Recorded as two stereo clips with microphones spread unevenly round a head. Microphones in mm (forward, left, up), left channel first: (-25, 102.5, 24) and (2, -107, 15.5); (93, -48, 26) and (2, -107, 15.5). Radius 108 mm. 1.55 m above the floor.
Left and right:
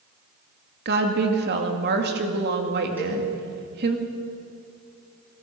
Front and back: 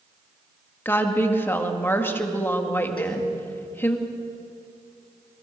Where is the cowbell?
Straight ahead, 5 m.